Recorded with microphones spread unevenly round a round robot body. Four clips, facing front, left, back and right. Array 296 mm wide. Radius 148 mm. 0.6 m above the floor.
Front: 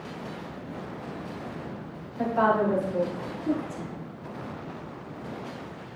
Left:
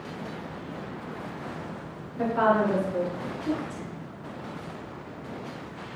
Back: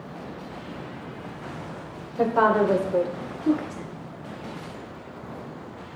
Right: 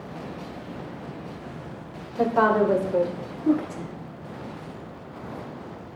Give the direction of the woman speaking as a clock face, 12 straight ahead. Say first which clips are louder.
Right 3 dB, back 3 dB; 5 o'clock.